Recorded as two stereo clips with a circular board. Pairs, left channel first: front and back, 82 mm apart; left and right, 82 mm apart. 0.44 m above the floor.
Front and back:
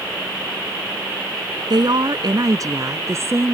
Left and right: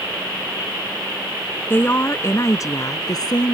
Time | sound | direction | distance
1.7 | a woman speaking | 150° left | ?